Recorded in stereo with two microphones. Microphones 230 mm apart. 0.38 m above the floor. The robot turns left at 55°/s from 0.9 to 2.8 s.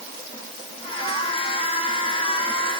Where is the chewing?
No chewing in this recording.